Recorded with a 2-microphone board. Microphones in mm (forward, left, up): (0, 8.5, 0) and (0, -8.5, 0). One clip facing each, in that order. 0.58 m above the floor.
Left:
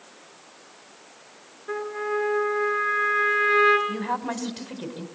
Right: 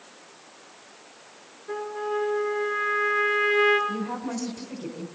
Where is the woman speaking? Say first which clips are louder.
Left 2 dB; 80° left, 3.5 m.